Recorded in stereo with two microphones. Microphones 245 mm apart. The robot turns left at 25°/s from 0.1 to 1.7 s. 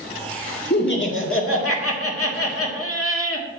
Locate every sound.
0.7 s laughter: 45° left (ahead or behind), 1.5 m; by 3.5 s 65° left (ahead or behind), 1.5 m